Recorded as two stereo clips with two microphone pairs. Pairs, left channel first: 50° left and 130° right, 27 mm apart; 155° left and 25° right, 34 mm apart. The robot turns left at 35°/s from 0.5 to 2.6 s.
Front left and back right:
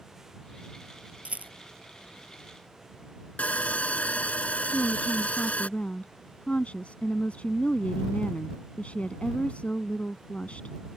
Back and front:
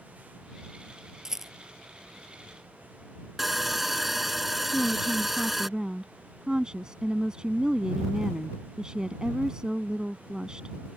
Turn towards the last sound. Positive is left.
turn(degrees=40)